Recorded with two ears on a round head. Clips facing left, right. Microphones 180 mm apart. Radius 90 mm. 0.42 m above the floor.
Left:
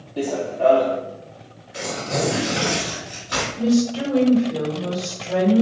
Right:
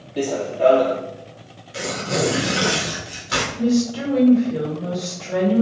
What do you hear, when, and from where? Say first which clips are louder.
0.2 s running footsteps: right 1 dB; 20° right (ahead or behind), 0.6 m
1.7 s tearing paper: right 1 dB; 40° right (ahead or behind), 1.7 m
3.5 s a woman speaking: left 1 dB; 15° right (ahead or behind), 1.5 m